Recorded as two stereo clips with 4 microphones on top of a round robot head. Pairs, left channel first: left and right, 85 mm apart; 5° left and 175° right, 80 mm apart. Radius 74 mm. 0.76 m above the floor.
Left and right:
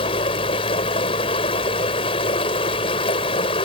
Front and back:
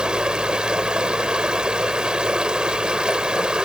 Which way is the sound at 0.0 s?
105° left.